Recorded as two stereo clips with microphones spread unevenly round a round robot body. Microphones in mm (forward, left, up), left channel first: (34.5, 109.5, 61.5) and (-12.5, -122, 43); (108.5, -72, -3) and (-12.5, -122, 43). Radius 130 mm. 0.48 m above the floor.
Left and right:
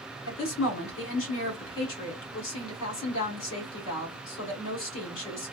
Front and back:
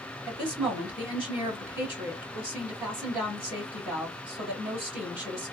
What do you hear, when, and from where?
0.3 s a woman speaking: 110° left, 1.9 m